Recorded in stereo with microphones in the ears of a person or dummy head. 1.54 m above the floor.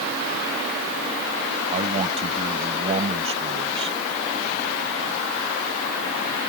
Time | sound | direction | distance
1.7 | a man speaking | 35° right (ahead or behind) | ?